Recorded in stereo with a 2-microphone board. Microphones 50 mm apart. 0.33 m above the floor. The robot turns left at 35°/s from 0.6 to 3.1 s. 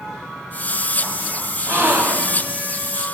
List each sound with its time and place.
1.7 s a gasp: 55° right (ahead or behind), 1.1 m; by 2.5 s 65° right (ahead or behind), 1.1 m